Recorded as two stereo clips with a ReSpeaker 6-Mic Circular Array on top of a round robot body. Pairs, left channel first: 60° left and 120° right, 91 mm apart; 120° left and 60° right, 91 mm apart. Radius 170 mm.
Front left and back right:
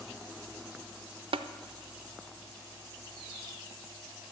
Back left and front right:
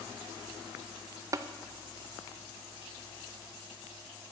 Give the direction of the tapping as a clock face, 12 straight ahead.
4 o'clock.